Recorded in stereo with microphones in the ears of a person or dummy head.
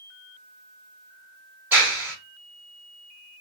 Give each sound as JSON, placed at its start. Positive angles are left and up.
{"t": 1.7, "sound": "a clap", "side_deg": -10, "distance_m": 3.0}